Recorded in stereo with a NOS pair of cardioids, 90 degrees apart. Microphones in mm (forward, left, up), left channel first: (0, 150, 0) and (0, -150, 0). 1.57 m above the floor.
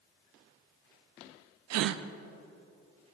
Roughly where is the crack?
I don't hear a crack.